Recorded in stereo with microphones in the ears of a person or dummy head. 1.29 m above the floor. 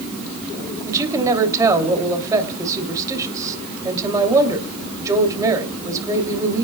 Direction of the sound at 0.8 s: 20° right (ahead or behind).